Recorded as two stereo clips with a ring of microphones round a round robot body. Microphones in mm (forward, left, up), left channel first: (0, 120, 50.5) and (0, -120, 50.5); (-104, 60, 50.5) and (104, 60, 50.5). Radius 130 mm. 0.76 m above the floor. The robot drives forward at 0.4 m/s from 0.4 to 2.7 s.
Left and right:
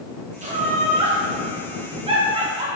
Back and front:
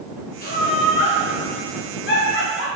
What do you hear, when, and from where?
0.4 s laughter: 145° right, 1.8 m; by 2.7 s 160° right, 2.5 m